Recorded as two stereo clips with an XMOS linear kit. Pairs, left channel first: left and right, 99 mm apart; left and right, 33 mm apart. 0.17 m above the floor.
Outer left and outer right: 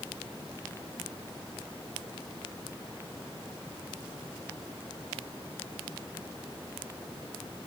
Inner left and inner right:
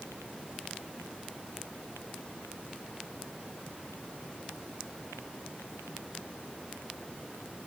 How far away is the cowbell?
No cowbell in this recording.